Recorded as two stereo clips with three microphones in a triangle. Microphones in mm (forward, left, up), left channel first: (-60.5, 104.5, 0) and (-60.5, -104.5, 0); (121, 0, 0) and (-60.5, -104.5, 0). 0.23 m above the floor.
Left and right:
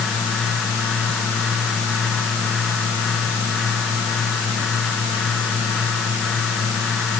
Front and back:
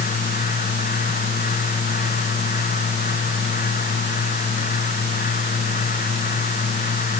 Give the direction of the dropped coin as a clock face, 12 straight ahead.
No dropped coin in this recording.